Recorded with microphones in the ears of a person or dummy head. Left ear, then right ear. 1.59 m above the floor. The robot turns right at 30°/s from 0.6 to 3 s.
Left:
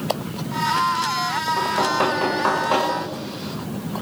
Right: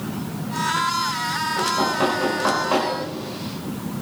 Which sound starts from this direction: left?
Knocking, at 1.6 s.